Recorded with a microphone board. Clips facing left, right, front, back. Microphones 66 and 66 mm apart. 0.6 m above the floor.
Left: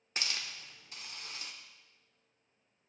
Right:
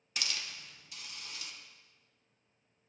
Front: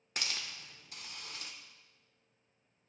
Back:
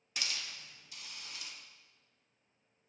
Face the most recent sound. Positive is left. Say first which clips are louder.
# left 1 dB, front 1 dB
turn(degrees=35)